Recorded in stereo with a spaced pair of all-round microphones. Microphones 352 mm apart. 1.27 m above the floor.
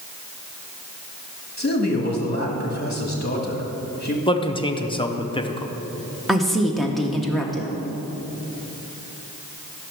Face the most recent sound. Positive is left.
turn(degrees=0)  # may be behind; listen again after turning